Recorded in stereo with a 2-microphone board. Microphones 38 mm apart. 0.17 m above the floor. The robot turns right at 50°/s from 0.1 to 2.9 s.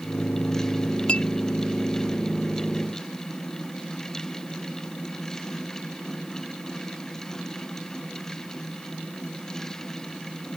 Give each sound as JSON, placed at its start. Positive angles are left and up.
{"t": 1.1, "sound": "a clink", "side_deg": 30}